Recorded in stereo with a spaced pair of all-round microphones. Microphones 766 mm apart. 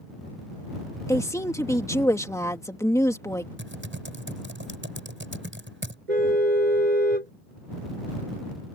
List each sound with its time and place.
1.1 s a woman speaking: 5° left (ahead or behind)
3.6 s typing on a keyboard: 15° right (ahead or behind)
6.1 s a car horn: 60° right (ahead or behind)